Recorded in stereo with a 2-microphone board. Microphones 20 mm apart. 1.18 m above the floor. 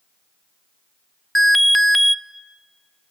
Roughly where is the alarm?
Centre.